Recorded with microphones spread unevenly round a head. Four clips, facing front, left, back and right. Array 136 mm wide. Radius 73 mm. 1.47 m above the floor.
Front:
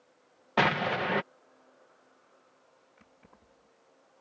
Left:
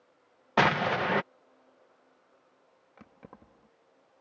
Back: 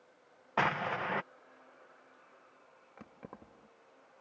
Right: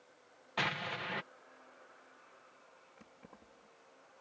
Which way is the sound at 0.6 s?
45° left.